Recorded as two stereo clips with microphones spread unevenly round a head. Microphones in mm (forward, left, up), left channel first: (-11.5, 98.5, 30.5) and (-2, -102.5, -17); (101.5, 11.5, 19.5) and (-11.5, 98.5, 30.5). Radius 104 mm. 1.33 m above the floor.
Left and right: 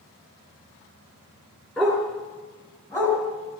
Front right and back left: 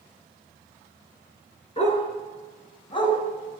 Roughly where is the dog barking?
Ahead.